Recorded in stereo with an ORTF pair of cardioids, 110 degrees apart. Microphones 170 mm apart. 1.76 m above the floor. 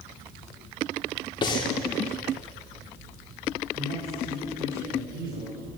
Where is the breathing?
30° left, 3 m.